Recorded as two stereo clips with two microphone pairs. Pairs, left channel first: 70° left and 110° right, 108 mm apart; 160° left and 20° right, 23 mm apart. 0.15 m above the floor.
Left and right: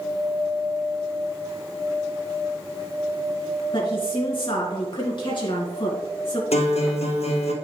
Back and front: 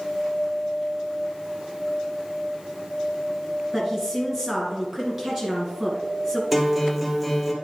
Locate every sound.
3.7 s a woman speaking: 45° left, 2 m
6.5 s a guitar: 65° left, 1.4 m